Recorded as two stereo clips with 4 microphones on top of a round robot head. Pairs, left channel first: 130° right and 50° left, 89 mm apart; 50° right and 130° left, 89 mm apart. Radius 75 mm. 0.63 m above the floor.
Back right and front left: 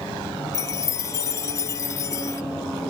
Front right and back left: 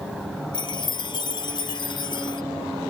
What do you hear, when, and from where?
0.5 s a chime: 80° right